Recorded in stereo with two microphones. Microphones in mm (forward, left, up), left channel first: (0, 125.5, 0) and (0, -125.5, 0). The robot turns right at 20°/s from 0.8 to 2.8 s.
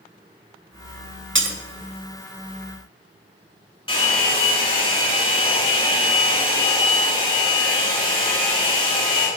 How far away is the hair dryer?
About 3 m.